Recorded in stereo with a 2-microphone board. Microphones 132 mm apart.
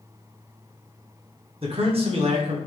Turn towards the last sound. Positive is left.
turn(degrees=-45)  # may be behind; listen again after turning